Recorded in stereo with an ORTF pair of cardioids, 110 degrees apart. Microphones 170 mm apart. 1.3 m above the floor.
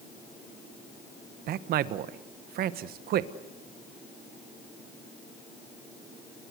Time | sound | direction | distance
1.5 | a man speaking | 70° right | 1.3 m